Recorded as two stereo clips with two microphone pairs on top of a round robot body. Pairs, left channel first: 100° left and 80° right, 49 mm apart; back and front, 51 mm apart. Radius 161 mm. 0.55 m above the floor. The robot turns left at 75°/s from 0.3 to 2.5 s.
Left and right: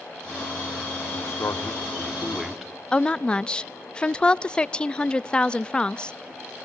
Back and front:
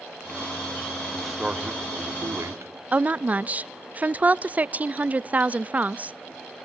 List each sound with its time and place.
1.1 s a man speaking: 100° left, 2 m; by 2.7 s 5° right, 2 m
2.9 s a woman speaking: 10° left, 0.6 m